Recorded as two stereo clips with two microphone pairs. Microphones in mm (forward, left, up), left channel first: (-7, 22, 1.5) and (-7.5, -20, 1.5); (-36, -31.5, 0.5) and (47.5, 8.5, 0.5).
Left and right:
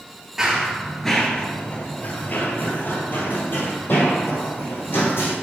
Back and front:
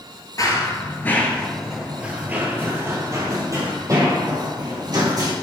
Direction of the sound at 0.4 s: 160° right.